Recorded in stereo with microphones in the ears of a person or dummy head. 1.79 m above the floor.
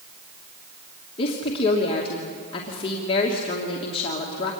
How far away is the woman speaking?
About 3 m.